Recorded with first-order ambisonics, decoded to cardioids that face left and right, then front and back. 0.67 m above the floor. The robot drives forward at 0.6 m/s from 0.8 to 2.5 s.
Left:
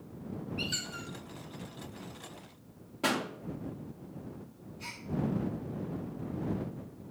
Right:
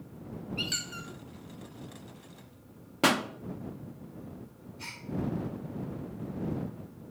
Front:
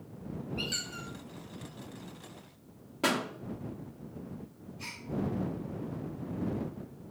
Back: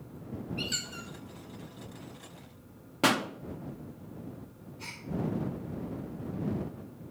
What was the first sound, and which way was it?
A squeak, 95° right.